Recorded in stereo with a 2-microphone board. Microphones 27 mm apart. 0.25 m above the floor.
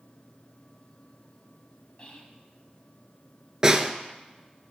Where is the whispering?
40° left (ahead or behind), 1.9 m.